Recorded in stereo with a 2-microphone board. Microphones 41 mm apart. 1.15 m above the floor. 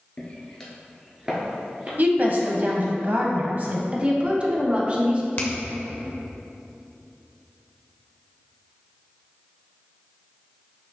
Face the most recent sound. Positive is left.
turn(degrees=45)  # may be behind; listen again after turning